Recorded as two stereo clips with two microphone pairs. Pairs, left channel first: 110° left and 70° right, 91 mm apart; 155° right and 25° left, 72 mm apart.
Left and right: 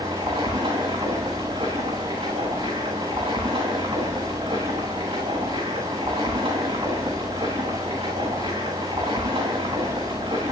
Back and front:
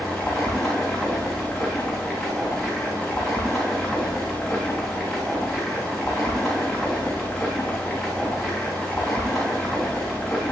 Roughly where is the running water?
Right.